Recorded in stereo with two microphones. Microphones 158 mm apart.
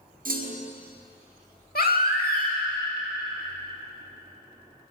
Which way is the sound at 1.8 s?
70° left (ahead or behind).